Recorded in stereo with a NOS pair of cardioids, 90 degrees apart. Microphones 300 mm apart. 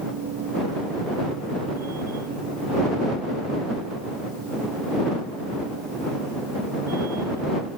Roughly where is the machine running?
Ahead right.